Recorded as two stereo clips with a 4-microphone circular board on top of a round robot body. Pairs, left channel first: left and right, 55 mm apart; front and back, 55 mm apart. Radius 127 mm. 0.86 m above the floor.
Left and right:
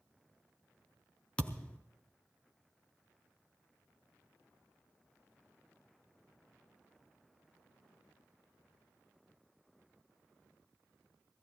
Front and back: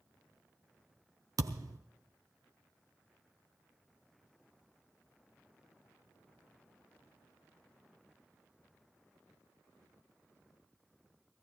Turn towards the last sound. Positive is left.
turn(degrees=160)